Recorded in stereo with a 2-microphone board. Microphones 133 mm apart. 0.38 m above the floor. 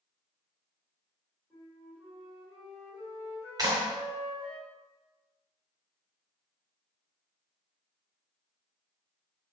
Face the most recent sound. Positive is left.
turn(degrees=-30)  # may be behind; listen again after turning